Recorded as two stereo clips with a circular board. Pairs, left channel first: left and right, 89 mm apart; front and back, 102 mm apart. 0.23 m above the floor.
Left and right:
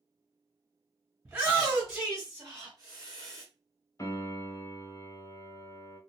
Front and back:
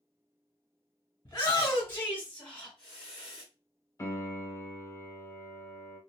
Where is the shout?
35° right, 1.6 m; by 3.5 s 110° right, 1.6 m.